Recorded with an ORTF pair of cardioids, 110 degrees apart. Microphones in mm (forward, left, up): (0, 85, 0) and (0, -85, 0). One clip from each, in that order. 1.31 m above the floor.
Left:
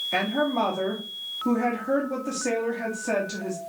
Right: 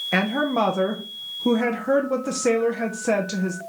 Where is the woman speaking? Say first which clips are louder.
Right 3 dB; 35° right, 0.8 m.